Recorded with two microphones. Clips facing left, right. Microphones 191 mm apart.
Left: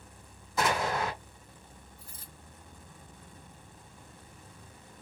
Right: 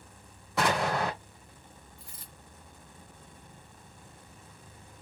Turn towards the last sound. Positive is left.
turn(degrees=-75)  # may be behind; listen again after turning